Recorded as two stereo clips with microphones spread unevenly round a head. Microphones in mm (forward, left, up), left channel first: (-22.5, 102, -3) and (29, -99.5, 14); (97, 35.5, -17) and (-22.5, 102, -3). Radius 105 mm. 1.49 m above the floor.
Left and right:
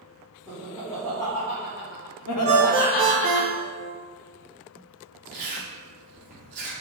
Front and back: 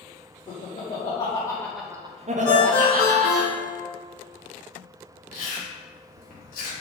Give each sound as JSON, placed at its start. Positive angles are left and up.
{"t": 0.5, "sound": "laughter", "azimuth_deg": 10, "distance_m": 1.3}
{"t": 2.5, "sound": "a ringtone", "azimuth_deg": -5, "distance_m": 1.5}
{"t": 5.3, "sound": "chewing", "azimuth_deg": -20, "distance_m": 1.3}